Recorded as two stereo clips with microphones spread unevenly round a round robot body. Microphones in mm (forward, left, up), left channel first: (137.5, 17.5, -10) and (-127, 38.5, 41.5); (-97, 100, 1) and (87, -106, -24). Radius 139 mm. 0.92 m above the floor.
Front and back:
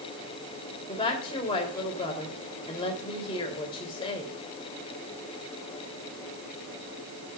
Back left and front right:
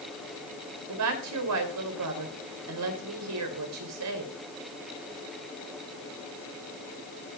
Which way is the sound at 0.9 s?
80° right.